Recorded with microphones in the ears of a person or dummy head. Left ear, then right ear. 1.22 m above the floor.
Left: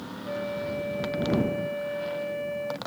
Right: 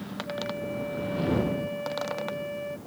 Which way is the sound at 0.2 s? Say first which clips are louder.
Left 3 dB; 30° left (ahead or behind).